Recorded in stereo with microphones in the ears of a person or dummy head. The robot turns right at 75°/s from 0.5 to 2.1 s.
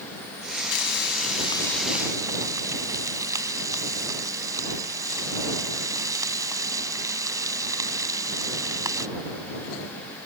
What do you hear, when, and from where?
0.7 s frying: 95° left; by 9.1 s 165° right